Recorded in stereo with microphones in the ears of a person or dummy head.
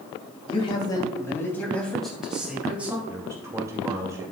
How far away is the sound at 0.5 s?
About 2.5 m.